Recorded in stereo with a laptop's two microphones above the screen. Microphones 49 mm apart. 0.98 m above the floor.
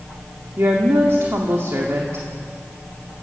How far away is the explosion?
I don't hear an explosion.